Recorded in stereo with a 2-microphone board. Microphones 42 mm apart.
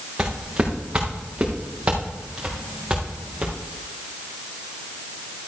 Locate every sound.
0.2 s footsteps: 35° right (ahead or behind), 3 m; by 3.5 s 25° right (ahead or behind), 5 m